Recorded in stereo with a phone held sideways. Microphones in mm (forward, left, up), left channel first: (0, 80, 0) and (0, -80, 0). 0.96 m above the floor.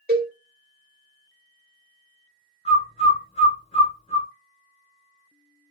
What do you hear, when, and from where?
0.1 s a cowbell: 65° right (ahead or behind), 1.1 m
2.6 s a bird: 40° left (ahead or behind), 1.1 m